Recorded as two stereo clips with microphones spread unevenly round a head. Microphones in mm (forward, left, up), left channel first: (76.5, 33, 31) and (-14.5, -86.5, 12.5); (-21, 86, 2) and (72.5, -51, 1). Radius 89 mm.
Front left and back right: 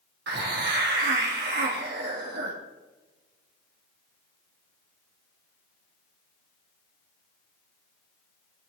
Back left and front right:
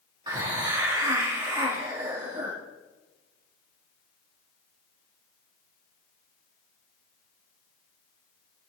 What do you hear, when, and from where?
0.3 s a hiss: 125° right, 1.8 m